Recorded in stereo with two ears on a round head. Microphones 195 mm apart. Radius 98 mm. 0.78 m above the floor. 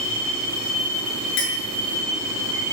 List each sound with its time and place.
1.4 s a clink: 55° left (ahead or behind), 6 m